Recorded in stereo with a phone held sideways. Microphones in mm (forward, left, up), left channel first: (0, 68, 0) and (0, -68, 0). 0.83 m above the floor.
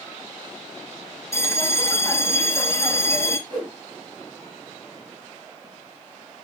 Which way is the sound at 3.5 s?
40° right (ahead or behind).